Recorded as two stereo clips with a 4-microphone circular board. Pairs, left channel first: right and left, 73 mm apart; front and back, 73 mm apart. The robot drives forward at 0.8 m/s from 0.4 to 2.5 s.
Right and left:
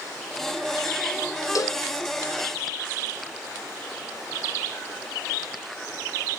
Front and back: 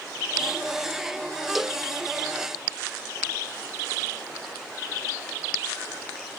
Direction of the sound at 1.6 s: 90° right.